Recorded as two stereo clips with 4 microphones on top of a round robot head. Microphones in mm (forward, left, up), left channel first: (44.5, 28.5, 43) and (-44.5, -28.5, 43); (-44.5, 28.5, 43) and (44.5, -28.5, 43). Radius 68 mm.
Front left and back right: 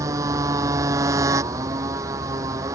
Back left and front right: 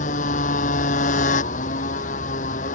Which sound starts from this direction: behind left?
A motorcycle, at 0.0 s.